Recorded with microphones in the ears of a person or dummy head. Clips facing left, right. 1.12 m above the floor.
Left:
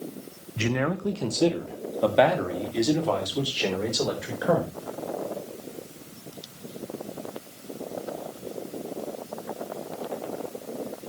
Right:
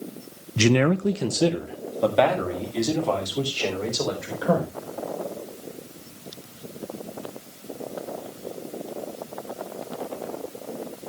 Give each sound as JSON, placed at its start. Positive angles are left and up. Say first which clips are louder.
{"t": 0.6, "sound": "a man speaking", "louder": "right 7 dB", "side_deg": -60, "distance_m": 0.6}